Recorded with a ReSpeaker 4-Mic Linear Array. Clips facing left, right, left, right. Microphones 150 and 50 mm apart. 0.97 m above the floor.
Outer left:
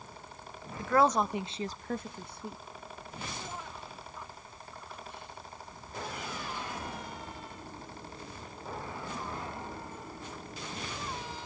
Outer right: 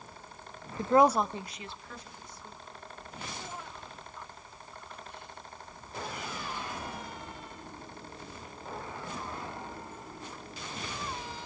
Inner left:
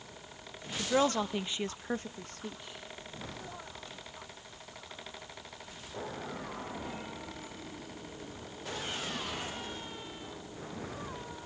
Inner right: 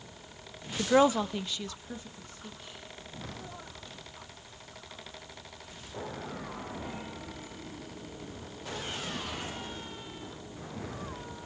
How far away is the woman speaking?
About 0.6 m.